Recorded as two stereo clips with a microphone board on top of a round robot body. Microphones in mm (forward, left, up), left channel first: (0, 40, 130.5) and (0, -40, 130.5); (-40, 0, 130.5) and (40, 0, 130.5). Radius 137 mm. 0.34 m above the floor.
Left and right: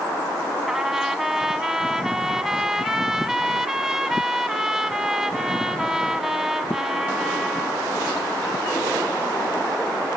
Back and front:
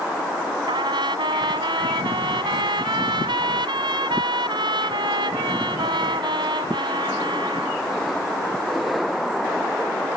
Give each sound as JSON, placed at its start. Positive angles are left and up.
{"t": 0.7, "sound": "a trumpet", "azimuth_deg": -5}